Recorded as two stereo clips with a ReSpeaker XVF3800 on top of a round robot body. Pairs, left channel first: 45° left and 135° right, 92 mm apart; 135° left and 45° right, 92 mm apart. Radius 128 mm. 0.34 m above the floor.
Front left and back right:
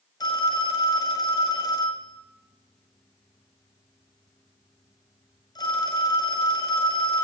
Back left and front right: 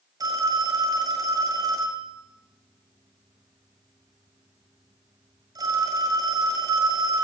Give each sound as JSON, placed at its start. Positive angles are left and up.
{"t": 0.2, "sound": "a phone ringing", "azimuth_deg": 5, "distance_m": 1.6}